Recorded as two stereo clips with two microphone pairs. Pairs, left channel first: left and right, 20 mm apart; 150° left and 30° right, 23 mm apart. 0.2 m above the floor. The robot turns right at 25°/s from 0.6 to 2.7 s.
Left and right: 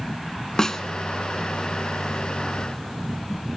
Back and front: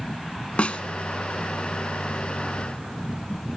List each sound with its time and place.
0.6 s a snare drum: 135° left, 1.2 m; by 0.8 s 140° left, 1.2 m